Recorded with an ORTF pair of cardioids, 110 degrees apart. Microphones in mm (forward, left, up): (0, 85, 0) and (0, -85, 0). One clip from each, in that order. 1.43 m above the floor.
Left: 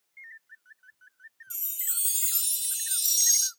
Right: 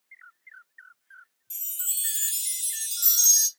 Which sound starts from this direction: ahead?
A chime, at 1.5 s.